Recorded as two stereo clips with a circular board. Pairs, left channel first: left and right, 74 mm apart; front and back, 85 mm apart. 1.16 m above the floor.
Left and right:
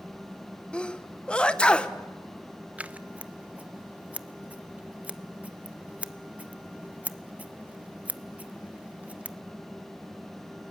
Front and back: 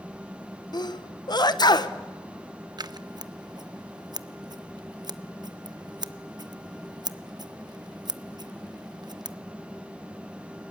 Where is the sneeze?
15° left, 1.0 m.